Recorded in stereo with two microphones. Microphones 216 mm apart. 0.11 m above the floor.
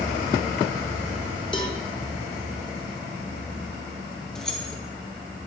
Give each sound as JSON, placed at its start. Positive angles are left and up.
{"t": 1.5, "sound": "a cowbell", "side_deg": 20, "distance_m": 1.0}
{"t": 4.3, "sound": "keys jangling", "side_deg": 5, "distance_m": 1.4}